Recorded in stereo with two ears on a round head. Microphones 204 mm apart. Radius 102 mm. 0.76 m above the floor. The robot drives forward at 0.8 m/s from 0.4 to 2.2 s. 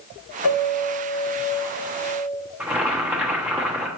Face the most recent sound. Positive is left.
turn(degrees=-5)  # may be behind; listen again after turning